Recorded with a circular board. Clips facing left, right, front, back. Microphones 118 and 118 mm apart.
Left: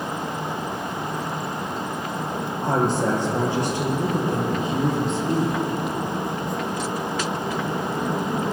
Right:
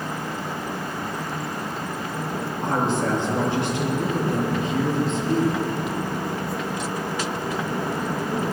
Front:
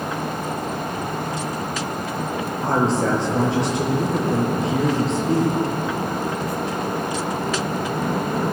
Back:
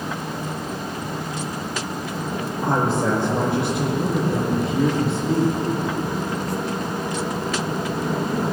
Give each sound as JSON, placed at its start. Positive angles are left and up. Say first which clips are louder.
{"t": 2.6, "sound": "a woman speaking", "louder": "left 2 dB, front 1 dB", "azimuth_deg": 15, "distance_m": 5.5}